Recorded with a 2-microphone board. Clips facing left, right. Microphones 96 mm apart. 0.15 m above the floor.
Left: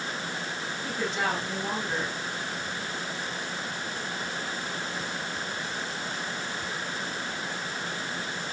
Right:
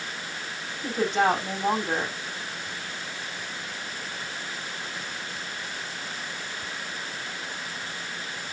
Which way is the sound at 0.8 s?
45° right (ahead or behind).